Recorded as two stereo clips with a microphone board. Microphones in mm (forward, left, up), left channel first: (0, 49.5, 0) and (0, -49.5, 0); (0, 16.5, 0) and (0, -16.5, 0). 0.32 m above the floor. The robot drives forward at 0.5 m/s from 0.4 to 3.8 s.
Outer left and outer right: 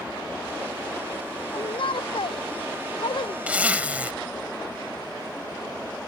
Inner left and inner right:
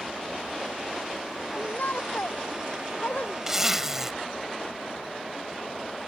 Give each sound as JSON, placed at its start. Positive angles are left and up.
{"t": 1.5, "sound": "a shout", "side_deg": 60}
{"t": 3.5, "sound": "a zipper", "side_deg": -15}